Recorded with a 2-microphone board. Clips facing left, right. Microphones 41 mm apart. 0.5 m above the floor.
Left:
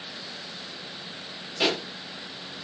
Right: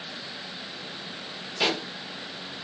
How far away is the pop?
About 5 m.